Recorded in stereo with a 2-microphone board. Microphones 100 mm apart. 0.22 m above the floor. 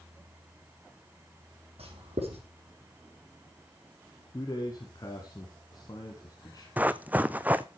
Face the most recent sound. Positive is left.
turn(degrees=-15)  # may be behind; listen again after turning